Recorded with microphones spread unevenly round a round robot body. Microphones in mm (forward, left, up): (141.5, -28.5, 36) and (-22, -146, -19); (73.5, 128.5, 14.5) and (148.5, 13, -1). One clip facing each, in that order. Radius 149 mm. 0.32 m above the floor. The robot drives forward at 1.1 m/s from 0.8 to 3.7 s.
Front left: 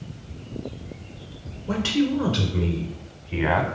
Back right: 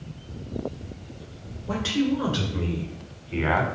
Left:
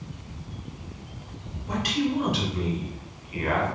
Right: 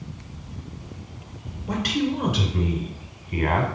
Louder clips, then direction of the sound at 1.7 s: Front left 2 dB, right 2 dB; 25° right.